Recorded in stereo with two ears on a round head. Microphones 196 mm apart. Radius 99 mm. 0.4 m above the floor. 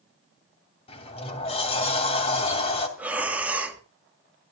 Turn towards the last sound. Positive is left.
turn(degrees=-5)  # may be behind; listen again after turning